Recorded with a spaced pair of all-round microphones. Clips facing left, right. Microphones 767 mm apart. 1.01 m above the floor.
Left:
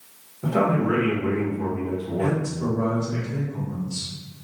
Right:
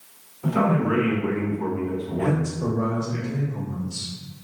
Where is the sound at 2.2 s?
25° left (ahead or behind), 1.7 m.